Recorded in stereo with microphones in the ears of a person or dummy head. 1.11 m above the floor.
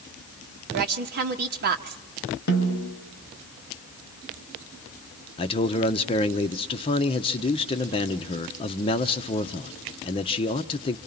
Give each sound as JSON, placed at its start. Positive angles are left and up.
{"t": 0.7, "sound": "a woman speaking", "side_deg": -55, "distance_m": 1.5}
{"t": 2.5, "sound": "a snare drum", "side_deg": 55, "distance_m": 3.5}
{"t": 5.4, "sound": "a man speaking", "side_deg": 30, "distance_m": 0.8}